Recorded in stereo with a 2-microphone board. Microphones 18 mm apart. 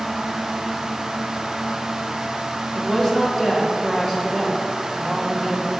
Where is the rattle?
No rattle in this recording.